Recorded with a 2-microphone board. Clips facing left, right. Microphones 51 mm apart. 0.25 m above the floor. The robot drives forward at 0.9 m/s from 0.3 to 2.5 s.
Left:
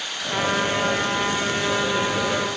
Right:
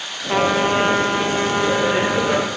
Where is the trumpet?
85° right, 1.5 m; by 2.5 s 35° right (ahead or behind), 2.5 m.